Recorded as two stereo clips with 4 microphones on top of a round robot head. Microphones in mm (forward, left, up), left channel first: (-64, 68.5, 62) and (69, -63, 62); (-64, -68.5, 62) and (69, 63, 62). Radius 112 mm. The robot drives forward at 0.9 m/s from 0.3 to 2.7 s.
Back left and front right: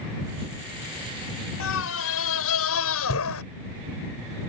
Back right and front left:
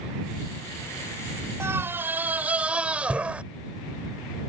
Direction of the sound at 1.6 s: 125° left.